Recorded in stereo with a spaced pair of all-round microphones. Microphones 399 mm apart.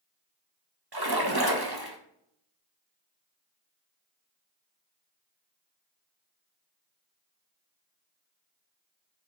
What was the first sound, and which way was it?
A splash, 60° right (ahead or behind).